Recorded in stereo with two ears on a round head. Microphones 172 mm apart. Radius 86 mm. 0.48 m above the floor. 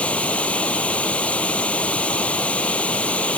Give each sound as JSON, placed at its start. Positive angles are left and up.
{"t": 0.0, "sound": "running water", "side_deg": 5}